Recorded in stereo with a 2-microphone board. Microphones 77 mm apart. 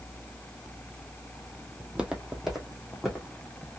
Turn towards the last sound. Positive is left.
turn(degrees=0)  # may be behind; listen again after turning